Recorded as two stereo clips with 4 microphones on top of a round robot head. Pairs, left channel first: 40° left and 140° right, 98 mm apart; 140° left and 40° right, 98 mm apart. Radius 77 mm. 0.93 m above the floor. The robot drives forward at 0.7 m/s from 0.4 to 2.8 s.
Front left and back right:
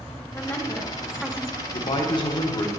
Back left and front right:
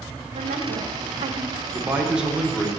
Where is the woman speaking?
35° right, 1.2 m; by 1.6 s 80° right, 0.7 m.